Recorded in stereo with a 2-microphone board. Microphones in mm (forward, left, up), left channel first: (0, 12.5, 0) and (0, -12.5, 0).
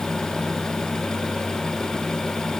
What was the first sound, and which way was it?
Only background noise.